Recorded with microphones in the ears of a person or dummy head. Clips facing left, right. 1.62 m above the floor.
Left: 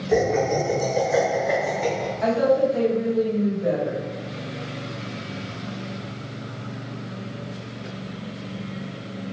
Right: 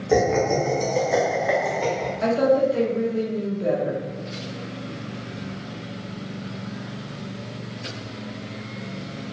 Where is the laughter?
65° right (ahead or behind), 1.1 m; by 2.1 s 55° right (ahead or behind), 1.1 m.